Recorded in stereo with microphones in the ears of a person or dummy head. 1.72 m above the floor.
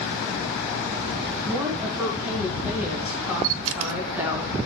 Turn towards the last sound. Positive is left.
turn(degrees=-75)  # may be behind; listen again after turning